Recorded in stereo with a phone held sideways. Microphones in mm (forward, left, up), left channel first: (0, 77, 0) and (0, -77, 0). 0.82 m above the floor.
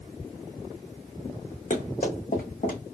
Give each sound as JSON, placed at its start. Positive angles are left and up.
{"t": 1.7, "sound": "running footsteps", "side_deg": 55, "distance_m": 2.0}